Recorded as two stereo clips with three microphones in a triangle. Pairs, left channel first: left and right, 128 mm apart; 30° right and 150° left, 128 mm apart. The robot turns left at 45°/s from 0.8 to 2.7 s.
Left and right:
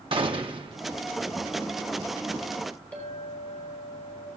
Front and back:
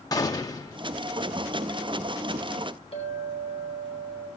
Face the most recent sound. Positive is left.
turn(degrees=10)